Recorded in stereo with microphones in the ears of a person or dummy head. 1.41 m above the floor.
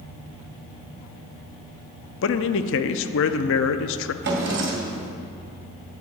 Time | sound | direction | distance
2.2 | a man speaking | 65° left (ahead or behind) | 0.6 m
4.2 | a drawer | 55° right (ahead or behind) | 2 m